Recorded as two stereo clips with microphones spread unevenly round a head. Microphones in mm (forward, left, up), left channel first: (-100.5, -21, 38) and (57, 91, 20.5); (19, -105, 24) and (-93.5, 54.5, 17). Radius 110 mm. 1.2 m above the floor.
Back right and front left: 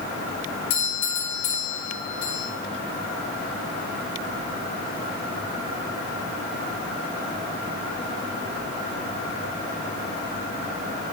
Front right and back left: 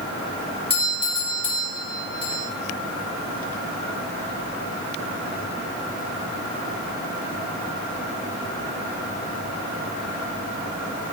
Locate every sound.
0.7 s a doorbell: 120° right, 6.5 m